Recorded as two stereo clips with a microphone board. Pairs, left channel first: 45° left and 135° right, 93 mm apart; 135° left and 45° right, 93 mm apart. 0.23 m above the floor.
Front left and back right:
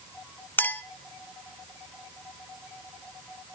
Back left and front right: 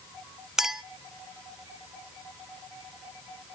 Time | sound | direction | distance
0.6 | a clink | 30° left | 0.7 m